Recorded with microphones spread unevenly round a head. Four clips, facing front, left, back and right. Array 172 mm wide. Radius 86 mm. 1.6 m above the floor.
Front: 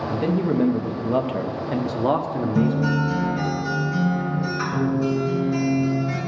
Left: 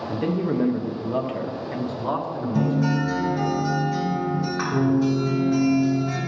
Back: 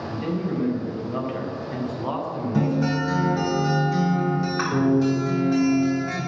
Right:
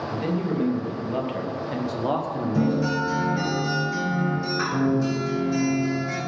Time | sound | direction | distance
0.1 | a man speaking | 45° left | 1.0 m
2.5 | a guitar | straight behind | 4 m